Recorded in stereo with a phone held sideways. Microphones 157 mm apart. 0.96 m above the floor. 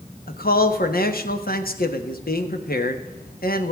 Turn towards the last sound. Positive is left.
turn(degrees=70)  # may be behind; listen again after turning